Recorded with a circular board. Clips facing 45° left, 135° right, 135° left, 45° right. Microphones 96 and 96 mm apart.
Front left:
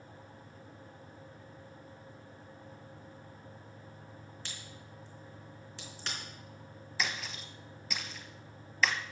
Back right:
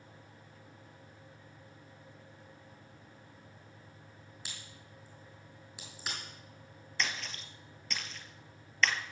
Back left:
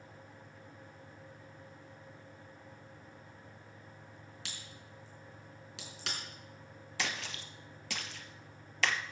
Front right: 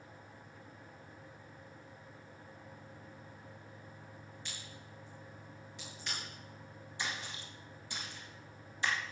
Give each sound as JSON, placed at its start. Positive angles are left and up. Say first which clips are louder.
{"t": 4.5, "sound": "a crack", "louder": "front left 3 dB, even", "azimuth_deg": 140, "distance_m": 4.0}
{"t": 7.0, "sound": "a splash", "louder": "front left 1 dB, back left 2 dB", "azimuth_deg": 130, "distance_m": 1.1}